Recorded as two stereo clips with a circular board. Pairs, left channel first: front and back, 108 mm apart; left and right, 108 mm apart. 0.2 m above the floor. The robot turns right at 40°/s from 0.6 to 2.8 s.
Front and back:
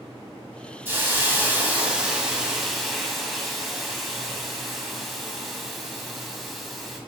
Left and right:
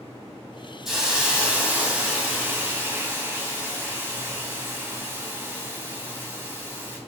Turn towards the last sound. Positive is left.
turn(degrees=-90)